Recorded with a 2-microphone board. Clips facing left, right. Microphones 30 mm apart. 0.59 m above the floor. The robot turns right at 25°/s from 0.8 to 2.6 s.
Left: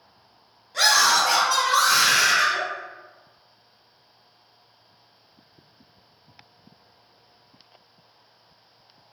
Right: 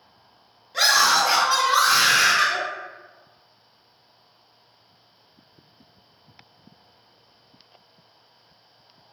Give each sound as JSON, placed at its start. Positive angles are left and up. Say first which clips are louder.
{"t": 0.7, "sound": "a scream", "louder": "even", "azimuth_deg": -165, "distance_m": 1.1}